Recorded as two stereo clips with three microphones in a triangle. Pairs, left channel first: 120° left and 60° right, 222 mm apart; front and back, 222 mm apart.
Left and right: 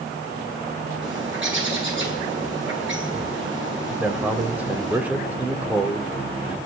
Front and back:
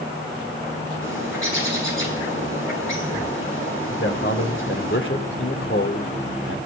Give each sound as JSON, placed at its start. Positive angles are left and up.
{"t": 1.0, "sound": "a bird", "azimuth_deg": -25, "distance_m": 7.5}
{"t": 4.0, "sound": "a man speaking", "azimuth_deg": 25, "distance_m": 3.0}